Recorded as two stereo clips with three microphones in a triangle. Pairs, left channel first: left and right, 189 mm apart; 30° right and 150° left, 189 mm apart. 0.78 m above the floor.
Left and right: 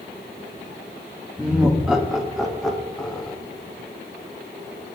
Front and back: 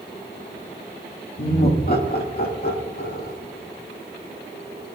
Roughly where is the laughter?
Ahead.